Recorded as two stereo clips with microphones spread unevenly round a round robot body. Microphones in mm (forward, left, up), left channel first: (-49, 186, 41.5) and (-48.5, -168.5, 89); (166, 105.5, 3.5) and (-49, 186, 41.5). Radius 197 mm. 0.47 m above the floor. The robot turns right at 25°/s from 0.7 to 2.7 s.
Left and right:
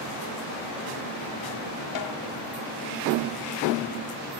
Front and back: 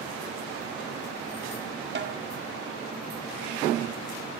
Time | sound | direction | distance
1.9 | a snare drum | 115° left | 1.6 m